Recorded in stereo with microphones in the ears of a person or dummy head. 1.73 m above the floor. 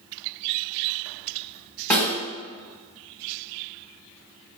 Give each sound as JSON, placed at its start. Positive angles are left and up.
{"t": 1.9, "sound": "a snare drum", "side_deg": 10, "distance_m": 1.8}